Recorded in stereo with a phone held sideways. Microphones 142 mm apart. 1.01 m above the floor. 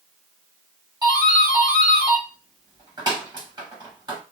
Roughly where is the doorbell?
Right.